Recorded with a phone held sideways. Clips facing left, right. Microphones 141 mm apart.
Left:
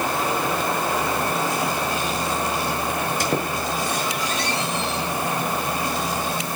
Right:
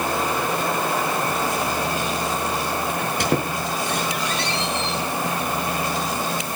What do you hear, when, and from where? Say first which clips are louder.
3.0 s a squeak: right 2 dB; 65° right (ahead or behind), 4.5 m